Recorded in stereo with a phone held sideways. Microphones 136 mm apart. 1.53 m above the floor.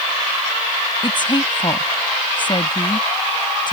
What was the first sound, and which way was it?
A woman speaking, 35° left (ahead or behind).